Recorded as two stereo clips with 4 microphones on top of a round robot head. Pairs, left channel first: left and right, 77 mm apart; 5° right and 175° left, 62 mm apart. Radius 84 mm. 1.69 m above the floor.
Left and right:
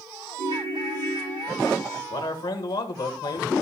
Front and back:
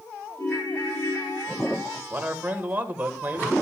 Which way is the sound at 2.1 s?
115° left.